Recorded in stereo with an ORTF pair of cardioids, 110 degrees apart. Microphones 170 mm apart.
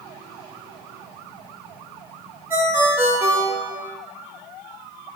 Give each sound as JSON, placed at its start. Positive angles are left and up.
{"t": 2.5, "sound": "a ringtone", "azimuth_deg": -10, "distance_m": 0.8}